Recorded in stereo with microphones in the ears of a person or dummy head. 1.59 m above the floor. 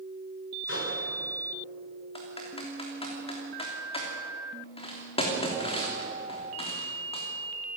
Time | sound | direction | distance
0.7 | a microwave | 80° left | 5.5 m
2.1 | typing on a keyboard | 35° left (ahead or behind) | 3 m